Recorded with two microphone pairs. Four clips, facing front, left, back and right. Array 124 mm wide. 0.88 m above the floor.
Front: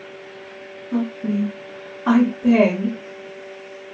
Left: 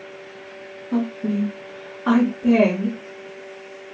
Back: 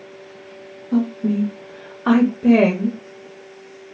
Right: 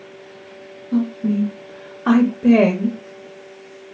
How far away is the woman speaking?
About 0.9 m.